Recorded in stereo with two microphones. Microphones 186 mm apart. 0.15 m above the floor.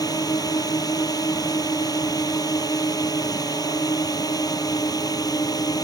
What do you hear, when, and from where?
0.0 s a drone: 20° left (ahead or behind)